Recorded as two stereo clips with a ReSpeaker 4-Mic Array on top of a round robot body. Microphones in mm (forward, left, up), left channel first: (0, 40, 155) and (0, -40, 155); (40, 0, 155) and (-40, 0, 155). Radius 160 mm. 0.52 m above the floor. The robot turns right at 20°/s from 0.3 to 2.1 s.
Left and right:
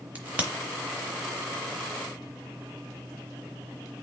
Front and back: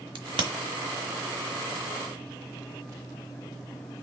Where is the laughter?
No laughter in this recording.